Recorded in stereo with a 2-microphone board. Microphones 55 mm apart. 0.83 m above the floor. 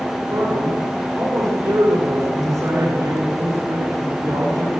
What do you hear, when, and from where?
0.3 s a man speaking: 85° right, 9.5 m